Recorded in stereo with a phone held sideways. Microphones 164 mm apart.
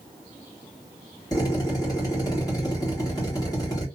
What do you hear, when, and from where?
1.3 s a drill: 20° left (ahead or behind), 1.6 m